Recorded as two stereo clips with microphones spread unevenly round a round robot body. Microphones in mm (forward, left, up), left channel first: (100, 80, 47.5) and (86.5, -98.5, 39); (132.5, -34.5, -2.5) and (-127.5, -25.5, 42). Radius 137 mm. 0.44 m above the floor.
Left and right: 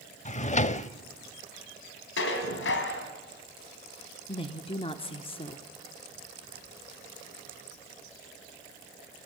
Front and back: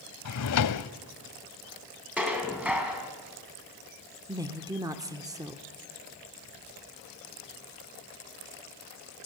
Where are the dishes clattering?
90° left, 2.5 m.